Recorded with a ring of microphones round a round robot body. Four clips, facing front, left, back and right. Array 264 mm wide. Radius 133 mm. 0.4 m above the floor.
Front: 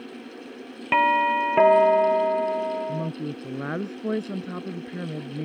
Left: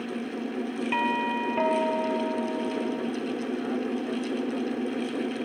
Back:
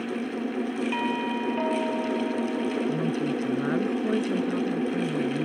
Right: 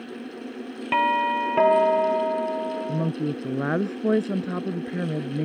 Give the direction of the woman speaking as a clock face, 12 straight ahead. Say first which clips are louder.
Right 3 dB, back 4 dB; 3 o'clock.